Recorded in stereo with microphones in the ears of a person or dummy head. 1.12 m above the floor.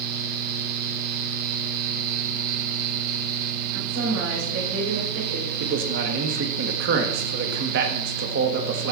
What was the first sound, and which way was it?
A woman speaking, 80° right.